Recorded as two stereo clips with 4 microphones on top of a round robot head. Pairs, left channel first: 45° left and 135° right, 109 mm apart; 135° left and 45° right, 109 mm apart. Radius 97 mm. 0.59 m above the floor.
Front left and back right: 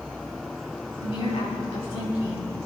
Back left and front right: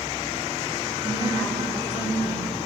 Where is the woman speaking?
10° left, 6 m.